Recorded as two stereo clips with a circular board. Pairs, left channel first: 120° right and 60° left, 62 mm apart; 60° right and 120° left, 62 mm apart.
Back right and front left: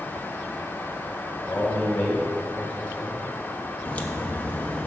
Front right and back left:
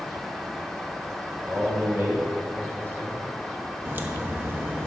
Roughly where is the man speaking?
Behind.